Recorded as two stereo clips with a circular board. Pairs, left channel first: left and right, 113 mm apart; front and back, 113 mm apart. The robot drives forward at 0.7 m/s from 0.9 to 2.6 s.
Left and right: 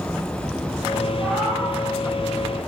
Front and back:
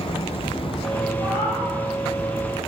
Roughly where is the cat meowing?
Behind.